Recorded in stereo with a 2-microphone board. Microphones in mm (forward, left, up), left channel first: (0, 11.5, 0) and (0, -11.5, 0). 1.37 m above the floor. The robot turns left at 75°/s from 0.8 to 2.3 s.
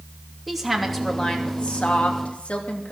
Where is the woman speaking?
Straight behind, 2.5 m; by 2.9 s 70° left, 2.5 m.